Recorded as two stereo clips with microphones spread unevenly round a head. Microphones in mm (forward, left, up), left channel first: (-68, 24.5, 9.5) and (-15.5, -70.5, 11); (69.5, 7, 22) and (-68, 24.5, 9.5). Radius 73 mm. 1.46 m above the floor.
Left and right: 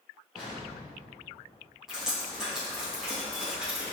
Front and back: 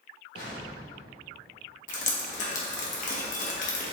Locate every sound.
0.3 s an explosion: 30° left, 2.5 m
1.9 s dripping: 25° left, 1.7 m